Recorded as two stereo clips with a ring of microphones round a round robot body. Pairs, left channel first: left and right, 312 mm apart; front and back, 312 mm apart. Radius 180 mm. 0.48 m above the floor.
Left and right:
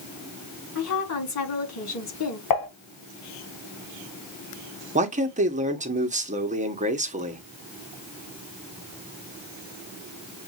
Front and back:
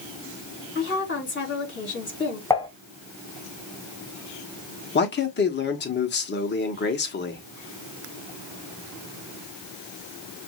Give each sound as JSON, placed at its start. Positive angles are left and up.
{"t": 0.8, "sound": "a woman speaking", "azimuth_deg": 55, "distance_m": 4.0}
{"t": 2.5, "sound": "dishes clattering", "azimuth_deg": 80, "distance_m": 3.0}
{"t": 5.0, "sound": "a man speaking", "azimuth_deg": -35, "distance_m": 1.3}